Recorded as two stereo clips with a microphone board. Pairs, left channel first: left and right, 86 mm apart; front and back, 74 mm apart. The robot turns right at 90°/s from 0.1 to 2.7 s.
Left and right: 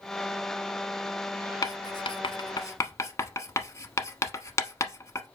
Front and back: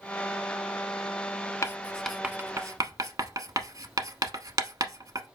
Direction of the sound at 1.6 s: 50° left.